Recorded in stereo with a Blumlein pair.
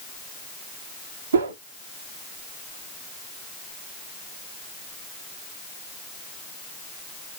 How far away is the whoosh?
About 0.8 m.